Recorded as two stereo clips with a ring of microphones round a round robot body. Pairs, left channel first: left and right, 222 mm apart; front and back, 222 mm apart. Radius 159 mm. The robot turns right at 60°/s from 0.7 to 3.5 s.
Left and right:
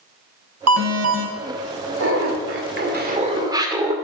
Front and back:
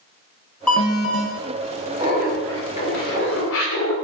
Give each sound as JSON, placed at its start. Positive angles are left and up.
{"t": 0.7, "sound": "an alarm", "azimuth_deg": -85, "distance_m": 1.5}
{"t": 2.0, "sound": "laughter", "azimuth_deg": -110, "distance_m": 2.5}